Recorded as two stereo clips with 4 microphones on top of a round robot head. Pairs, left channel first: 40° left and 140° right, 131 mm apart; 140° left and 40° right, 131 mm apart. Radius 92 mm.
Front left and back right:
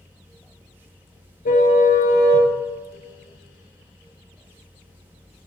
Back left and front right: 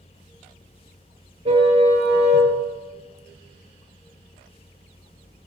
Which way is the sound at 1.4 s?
10° left.